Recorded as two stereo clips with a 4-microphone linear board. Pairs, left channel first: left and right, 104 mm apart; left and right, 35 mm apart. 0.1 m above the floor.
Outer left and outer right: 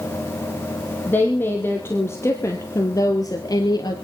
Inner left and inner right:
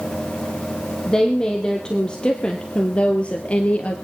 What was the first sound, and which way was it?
A woman speaking, 20° left (ahead or behind).